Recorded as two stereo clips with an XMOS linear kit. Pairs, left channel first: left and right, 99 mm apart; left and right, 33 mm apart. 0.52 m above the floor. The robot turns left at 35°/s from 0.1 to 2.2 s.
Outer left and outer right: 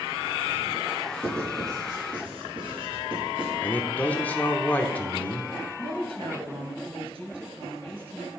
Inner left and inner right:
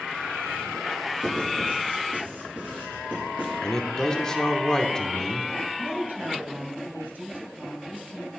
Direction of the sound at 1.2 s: 20° right (ahead or behind).